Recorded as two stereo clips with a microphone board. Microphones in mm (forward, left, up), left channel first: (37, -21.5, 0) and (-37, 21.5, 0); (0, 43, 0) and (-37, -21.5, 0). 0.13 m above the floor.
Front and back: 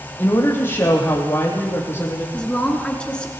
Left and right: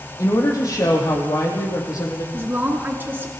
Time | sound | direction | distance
0.2 | a woman speaking | 25° left | 4.5 m
2.3 | a woman speaking | 95° right | 1.7 m